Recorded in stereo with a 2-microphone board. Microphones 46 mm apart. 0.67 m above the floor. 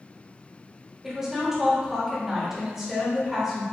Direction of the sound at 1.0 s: 15° right (ahead or behind).